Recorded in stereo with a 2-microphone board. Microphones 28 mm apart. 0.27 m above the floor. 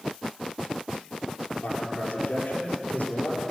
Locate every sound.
1.6 s a man speaking: 75° left (ahead or behind), 6 m